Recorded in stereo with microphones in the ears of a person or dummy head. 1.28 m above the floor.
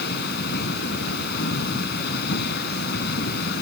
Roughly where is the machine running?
Left.